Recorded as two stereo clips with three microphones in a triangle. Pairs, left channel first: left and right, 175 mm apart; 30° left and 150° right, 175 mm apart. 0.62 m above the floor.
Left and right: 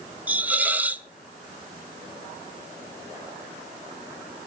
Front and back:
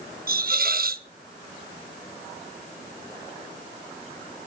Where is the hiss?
170° right, 0.5 m.